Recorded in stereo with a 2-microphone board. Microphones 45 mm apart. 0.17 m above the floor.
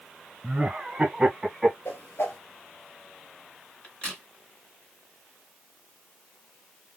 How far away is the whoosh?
About 1.1 m.